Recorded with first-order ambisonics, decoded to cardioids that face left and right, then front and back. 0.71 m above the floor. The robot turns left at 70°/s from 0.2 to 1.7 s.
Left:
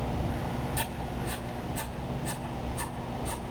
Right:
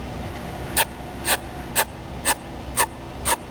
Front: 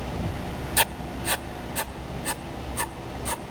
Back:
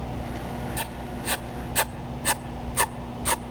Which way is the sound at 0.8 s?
45° right.